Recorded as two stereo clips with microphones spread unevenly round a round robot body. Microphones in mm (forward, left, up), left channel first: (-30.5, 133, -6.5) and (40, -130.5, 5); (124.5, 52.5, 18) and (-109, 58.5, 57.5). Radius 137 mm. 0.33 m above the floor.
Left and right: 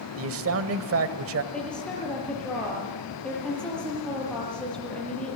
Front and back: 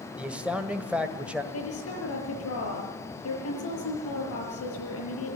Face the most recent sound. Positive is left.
turn(degrees=20)